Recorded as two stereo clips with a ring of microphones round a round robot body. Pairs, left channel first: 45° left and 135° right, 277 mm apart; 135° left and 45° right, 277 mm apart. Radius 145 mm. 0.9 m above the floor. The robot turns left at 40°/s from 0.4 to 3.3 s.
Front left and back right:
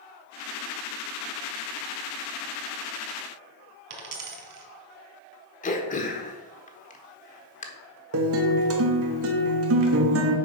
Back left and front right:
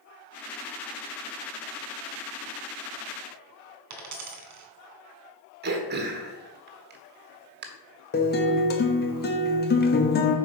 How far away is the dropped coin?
About 1.7 m.